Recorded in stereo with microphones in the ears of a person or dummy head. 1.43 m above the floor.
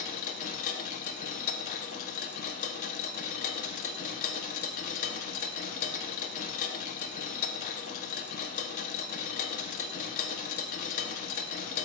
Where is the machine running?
45° left (ahead or behind), 0.9 m.